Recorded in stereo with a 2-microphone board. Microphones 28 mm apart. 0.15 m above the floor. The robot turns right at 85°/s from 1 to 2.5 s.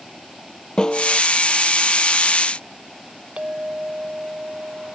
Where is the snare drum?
25° left (ahead or behind); by 1.2 s 10° left (ahead or behind).